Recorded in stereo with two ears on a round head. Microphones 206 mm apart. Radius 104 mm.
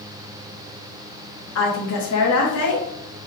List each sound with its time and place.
1.6 s a woman speaking: 70° left (ahead or behind), 1.2 m